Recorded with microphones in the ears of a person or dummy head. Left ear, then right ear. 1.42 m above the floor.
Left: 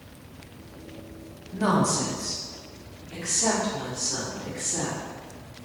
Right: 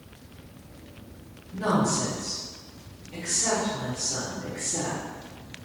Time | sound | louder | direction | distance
1.5 | a woman speaking | left 1 dB | 40° left (ahead or behind) | 0.9 m